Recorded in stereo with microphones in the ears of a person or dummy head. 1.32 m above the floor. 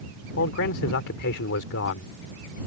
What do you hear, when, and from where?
0.4 s a man speaking: 65° left (ahead or behind)